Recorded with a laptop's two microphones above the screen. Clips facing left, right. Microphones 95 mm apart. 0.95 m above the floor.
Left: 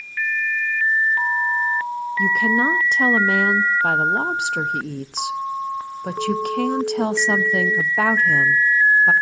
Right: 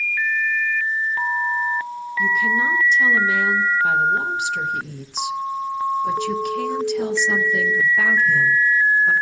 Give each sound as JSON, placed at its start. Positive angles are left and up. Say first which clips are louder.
{"t": 2.2, "sound": "a woman speaking", "louder": "left 1 dB", "side_deg": 55, "distance_m": 0.7}